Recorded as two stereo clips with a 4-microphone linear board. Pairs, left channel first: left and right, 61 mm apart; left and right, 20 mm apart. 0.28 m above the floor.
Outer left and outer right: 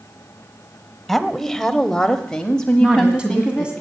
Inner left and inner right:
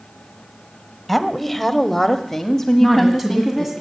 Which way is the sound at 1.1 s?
Centre (ahead or behind).